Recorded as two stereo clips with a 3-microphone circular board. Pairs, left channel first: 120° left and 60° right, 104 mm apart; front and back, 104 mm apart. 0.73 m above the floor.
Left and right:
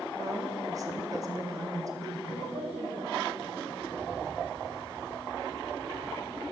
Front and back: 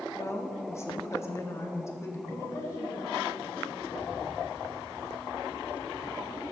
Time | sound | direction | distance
0.1 | a woman speaking | 40° right | 1.2 m
2.3 | a woman speaking | 65° right | 3 m
3.8 | a bird | 80° right | 4 m